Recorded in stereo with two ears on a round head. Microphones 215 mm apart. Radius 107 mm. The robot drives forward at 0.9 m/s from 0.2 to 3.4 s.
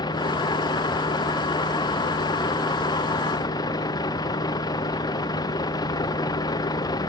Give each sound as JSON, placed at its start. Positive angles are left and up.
{"t": 0.0, "sound": "a vehicle", "side_deg": 20}